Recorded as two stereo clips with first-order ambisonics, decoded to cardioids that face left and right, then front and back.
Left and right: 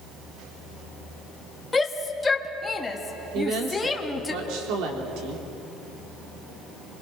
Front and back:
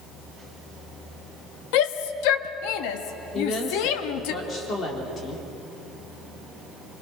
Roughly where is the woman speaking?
Ahead right.